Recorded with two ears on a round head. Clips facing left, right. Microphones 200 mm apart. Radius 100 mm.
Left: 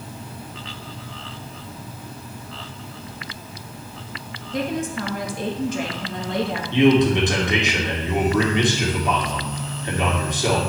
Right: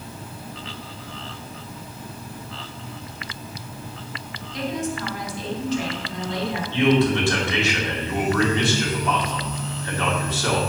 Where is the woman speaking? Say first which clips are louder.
Left 2 dB; 40° left (ahead or behind), 1.5 m.